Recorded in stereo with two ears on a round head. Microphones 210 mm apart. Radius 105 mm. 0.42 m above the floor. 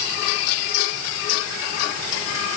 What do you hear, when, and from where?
Only background noise.